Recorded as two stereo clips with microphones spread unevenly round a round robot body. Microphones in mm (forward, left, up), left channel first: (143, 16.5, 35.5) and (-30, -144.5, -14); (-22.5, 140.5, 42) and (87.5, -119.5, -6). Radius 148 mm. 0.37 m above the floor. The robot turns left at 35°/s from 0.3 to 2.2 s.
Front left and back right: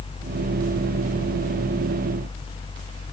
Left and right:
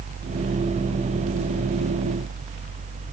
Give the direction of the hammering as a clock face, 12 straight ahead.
I don't hear hammering.